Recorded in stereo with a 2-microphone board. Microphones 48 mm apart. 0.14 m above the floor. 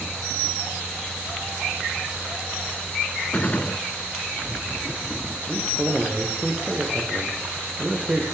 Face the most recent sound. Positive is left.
turn(degrees=-20)  # may be behind; listen again after turning